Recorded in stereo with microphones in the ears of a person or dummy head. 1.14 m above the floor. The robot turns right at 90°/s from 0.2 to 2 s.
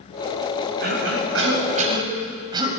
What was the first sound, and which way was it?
A cough, 135° right.